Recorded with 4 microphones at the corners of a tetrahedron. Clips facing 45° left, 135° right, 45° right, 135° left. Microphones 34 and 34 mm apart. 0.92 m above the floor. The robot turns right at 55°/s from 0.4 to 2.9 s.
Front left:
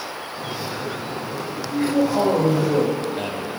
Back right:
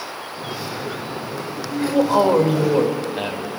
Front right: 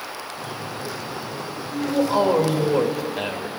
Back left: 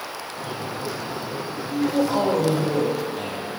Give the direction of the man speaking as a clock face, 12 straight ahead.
5 o'clock.